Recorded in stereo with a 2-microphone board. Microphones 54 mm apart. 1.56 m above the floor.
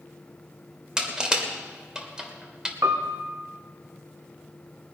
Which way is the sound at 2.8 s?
70° right (ahead or behind).